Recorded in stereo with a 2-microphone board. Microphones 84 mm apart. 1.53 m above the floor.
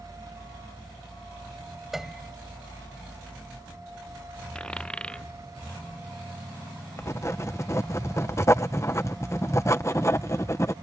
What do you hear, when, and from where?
1.9 s a piano: 5° right (ahead or behind)
4.5 s a dropped coin: 10° left (ahead or behind)
7.0 s writing: 35° left (ahead or behind)